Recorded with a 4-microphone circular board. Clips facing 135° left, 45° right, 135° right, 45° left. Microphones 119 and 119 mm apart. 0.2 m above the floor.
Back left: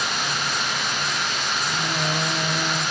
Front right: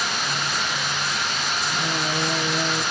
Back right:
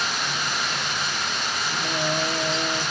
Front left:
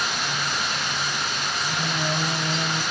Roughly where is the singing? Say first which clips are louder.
Even, back right 2 dB; ahead left.